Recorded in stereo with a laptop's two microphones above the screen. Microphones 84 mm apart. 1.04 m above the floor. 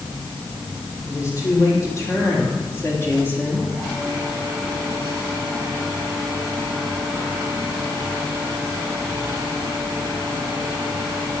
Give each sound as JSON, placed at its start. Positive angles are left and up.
{"t": 1.0, "sound": "a woman speaking", "side_deg": 40, "distance_m": 4.0}